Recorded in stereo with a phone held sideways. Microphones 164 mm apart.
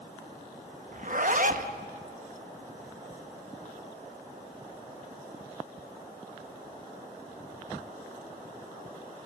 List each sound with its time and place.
0.9 s a zipper: 55° right (ahead or behind), 1.0 m